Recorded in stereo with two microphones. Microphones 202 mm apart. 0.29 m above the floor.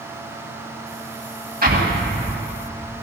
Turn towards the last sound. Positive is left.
turn(degrees=-50)  # may be behind; listen again after turning